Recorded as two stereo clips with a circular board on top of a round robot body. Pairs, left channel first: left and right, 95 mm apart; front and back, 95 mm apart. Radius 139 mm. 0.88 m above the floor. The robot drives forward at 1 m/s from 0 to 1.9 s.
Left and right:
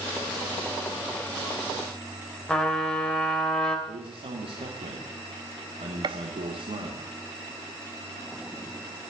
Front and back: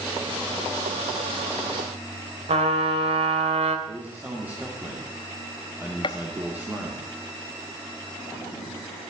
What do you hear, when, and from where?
2.5 s a trumpet: 170° left, 2.5 m
3.9 s a man speaking: 105° right, 2.5 m
6.0 s a gunshot: 45° right, 0.8 m